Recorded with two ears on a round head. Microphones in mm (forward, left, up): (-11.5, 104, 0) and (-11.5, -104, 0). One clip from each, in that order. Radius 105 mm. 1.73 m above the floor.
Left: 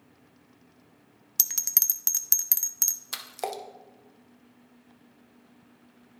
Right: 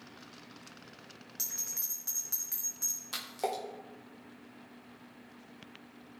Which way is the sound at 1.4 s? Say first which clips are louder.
Left 9 dB; 70° left (ahead or behind).